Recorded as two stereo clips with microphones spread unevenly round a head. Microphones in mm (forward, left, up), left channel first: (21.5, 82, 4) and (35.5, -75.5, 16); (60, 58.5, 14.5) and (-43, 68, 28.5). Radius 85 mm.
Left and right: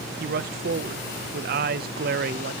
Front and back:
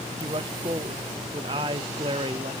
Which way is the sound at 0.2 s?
125° right.